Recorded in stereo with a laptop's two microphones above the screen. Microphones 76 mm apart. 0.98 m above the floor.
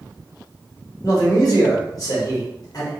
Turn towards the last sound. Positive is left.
turn(degrees=50)  # may be behind; listen again after turning